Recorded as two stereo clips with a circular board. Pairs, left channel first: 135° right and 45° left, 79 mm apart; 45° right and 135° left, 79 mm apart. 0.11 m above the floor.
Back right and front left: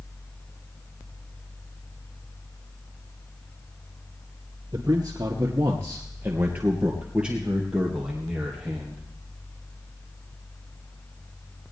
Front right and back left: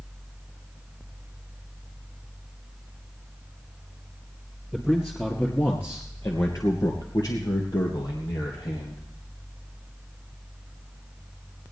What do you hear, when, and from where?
4.7 s a man speaking: 35° left, 2.0 m; by 9.0 s 45° right, 3.5 m